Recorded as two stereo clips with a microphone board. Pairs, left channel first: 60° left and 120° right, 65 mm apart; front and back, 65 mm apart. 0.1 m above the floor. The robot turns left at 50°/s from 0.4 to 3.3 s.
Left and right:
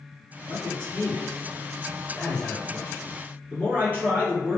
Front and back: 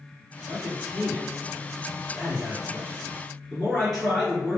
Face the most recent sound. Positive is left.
turn(degrees=-80)